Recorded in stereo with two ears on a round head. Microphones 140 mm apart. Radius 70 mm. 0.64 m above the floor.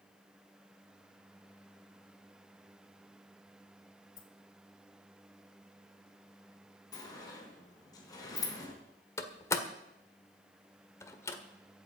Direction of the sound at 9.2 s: 20° left (ahead or behind).